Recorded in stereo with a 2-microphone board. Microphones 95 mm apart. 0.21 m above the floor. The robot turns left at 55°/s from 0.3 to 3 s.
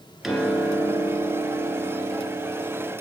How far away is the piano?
About 2.0 m.